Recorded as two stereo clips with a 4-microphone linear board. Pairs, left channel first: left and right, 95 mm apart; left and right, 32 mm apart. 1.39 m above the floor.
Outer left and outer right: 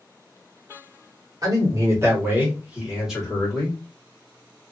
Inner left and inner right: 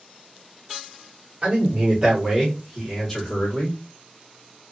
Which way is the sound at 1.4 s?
40° right (ahead or behind).